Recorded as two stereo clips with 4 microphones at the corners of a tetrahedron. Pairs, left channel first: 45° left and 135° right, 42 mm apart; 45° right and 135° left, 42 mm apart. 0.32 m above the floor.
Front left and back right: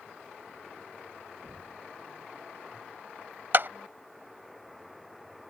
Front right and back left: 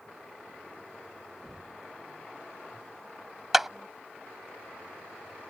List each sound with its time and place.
1.4 s knocking: 130° right
3.5 s a clap: 140° right